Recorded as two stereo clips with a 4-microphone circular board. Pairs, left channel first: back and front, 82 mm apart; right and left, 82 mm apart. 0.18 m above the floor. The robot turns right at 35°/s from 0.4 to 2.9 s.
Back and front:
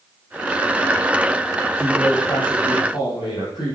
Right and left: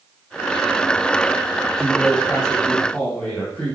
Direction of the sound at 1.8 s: 155° left.